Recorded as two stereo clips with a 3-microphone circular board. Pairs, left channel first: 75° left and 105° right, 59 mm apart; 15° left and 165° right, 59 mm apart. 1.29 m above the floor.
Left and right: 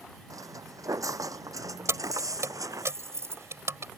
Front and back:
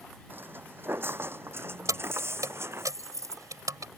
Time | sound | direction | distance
0.3 | footsteps | 110° right | ?
1.9 | keys jangling | 145° right | ?